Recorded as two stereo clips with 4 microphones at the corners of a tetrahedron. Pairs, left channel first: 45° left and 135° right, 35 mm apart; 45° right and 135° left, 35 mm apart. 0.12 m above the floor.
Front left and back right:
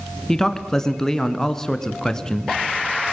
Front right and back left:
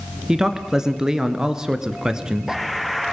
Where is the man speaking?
95° left, 1.8 m.